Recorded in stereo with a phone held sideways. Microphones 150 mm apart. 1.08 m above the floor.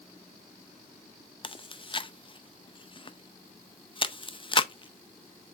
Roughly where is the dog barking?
No dog barking in this recording.